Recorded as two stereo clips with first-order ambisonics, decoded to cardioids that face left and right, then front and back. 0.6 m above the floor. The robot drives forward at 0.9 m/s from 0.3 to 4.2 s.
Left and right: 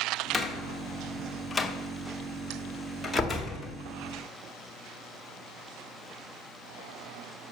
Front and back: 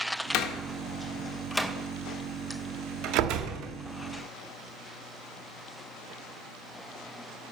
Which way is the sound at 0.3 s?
5° left.